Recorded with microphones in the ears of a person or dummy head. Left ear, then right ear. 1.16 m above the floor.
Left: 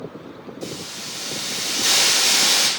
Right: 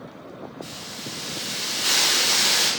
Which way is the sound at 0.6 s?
40° left (ahead or behind).